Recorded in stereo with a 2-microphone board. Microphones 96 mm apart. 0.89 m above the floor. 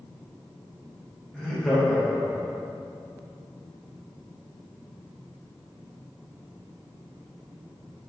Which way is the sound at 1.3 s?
Centre (ahead or behind).